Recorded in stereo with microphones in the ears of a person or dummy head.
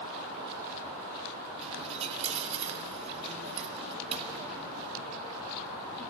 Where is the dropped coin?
35° right (ahead or behind), 2.5 m.